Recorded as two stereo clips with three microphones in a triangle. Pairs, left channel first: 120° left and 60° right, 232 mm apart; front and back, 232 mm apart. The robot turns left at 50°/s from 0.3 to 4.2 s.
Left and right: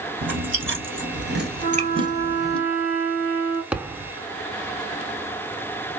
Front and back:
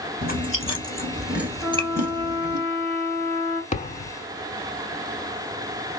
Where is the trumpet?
90° right, 1.7 m; by 3.6 s 170° left, 1.7 m.